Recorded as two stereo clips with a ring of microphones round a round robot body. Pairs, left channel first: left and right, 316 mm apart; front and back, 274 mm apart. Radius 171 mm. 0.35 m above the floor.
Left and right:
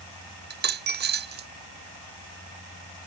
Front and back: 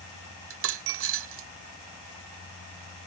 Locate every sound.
0.5 s a dropped coin: 145° right